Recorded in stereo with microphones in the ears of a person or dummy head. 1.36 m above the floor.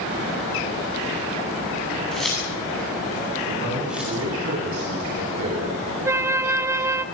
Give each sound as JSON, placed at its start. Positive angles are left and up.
{"t": 2.1, "sound": "keys jangling", "side_deg": 5, "distance_m": 9.5}
{"t": 3.5, "sound": "a man speaking", "side_deg": -65, "distance_m": 10.0}
{"t": 6.0, "sound": "a flute", "side_deg": -15, "distance_m": 1.2}